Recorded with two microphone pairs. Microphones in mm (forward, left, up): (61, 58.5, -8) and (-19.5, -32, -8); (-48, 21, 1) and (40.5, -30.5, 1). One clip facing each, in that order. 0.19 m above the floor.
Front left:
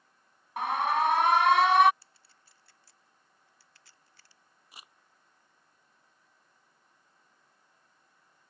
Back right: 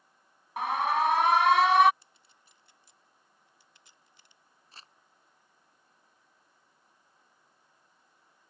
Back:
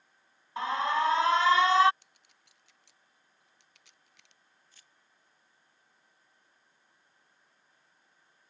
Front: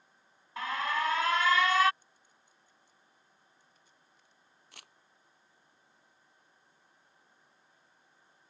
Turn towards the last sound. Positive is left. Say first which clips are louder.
# front left 1 dB, front 9 dB
turn(degrees=-30)